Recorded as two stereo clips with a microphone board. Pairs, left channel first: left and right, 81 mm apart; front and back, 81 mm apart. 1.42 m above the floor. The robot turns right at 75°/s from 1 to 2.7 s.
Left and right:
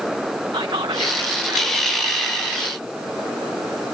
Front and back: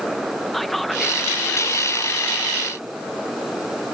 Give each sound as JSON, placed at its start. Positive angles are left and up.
{"t": 0.5, "sound": "whispering", "azimuth_deg": -90}